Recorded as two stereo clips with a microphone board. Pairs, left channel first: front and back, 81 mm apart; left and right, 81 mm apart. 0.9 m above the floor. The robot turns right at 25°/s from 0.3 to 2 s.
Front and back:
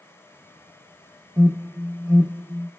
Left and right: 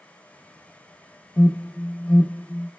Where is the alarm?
145° left, 1.1 m; by 2.7 s 160° left, 1.1 m.